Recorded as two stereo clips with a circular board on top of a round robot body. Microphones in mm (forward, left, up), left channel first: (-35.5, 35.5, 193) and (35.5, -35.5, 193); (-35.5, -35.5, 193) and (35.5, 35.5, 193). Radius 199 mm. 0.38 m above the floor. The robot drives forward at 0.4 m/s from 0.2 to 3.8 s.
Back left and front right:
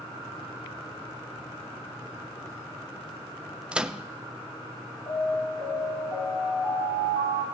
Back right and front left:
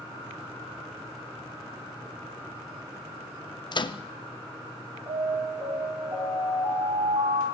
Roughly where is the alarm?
Left.